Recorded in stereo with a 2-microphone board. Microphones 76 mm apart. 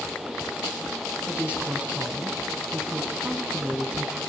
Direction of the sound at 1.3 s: 15° right (ahead or behind).